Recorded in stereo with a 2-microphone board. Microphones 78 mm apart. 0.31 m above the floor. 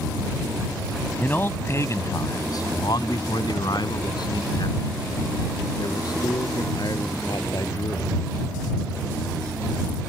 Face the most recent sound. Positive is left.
turn(degrees=55)  # may be behind; listen again after turning